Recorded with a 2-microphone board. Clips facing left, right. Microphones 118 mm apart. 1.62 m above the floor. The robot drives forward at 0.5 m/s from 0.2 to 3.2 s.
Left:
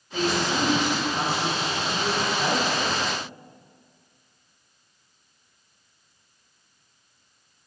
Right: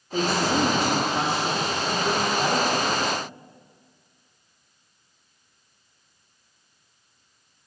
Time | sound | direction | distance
0.1 | a woman speaking | 45° right (ahead or behind) | 0.8 m